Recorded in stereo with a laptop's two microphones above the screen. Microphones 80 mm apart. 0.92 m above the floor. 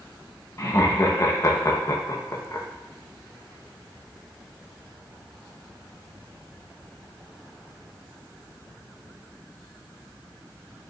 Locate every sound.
0.6 s laughter: 40° left (ahead or behind), 1.0 m